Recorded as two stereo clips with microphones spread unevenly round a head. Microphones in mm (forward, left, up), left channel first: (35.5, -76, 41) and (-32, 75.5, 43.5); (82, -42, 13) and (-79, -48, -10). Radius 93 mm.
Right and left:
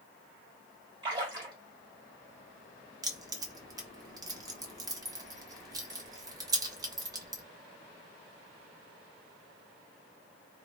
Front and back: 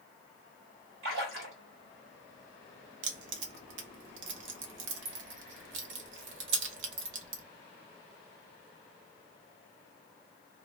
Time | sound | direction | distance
1.0 | a splash | straight behind | 1.7 m
3.0 | keys jangling | 175° right | 0.7 m